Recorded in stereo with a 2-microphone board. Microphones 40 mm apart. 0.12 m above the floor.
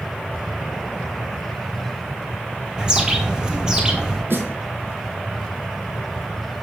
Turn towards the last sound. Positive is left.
turn(degrees=-70)  # may be behind; listen again after turning